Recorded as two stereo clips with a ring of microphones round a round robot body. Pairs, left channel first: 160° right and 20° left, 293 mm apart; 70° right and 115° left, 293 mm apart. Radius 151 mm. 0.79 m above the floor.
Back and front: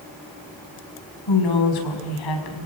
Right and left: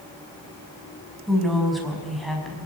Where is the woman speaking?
155° right, 5.5 m.